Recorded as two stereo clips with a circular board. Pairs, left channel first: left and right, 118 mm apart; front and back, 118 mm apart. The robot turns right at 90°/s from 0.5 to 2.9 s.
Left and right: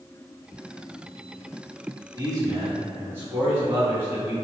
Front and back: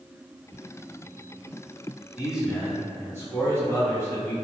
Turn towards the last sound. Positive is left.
turn(degrees=-45)